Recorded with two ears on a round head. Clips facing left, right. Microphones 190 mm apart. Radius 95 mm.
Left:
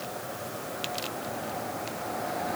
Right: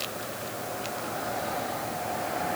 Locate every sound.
Only background noise.